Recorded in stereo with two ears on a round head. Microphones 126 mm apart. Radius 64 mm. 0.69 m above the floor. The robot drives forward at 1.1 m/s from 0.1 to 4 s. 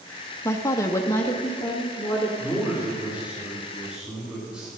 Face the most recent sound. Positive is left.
turn(degrees=-5)  # may be behind; listen again after turning